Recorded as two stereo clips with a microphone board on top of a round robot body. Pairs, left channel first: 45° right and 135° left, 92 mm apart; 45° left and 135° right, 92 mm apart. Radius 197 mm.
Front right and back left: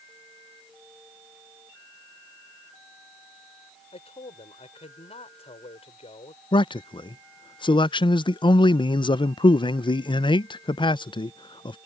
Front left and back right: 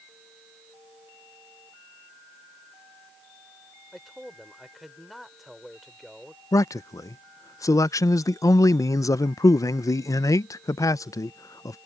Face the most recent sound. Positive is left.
turn(degrees=-10)